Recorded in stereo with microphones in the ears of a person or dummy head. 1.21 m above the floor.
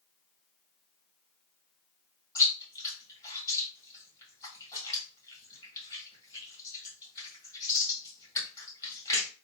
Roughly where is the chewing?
Centre.